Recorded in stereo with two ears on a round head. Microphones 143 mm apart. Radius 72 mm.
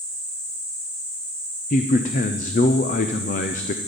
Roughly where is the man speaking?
Left.